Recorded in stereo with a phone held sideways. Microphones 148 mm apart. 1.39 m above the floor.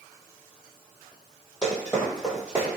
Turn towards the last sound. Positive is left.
turn(degrees=-20)  # may be behind; listen again after turning